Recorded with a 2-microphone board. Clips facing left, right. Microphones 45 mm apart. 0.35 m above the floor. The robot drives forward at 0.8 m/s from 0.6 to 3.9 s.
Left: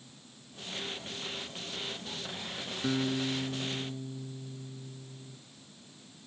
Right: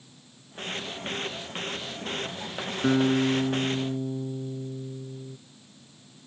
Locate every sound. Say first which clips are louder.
2.8 s a guitar: right 9 dB; 35° right (ahead or behind); by 5.4 s 50° right (ahead or behind)